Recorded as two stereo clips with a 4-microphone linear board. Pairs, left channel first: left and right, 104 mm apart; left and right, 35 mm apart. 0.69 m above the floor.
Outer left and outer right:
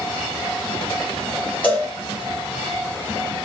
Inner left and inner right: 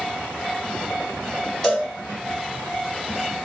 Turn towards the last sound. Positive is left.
turn(degrees=15)  # may be behind; listen again after turning